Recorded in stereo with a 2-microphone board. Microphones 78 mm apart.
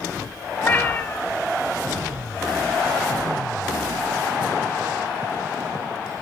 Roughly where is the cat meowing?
Left.